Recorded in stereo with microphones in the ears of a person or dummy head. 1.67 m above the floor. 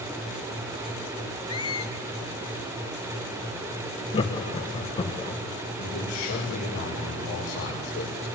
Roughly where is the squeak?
Left.